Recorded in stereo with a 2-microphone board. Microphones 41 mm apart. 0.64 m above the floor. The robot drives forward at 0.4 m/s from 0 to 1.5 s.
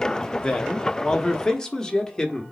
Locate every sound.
0.4 s a man speaking: 20° left (ahead or behind), 0.8 m; by 2.4 s 15° left (ahead or behind), 1.2 m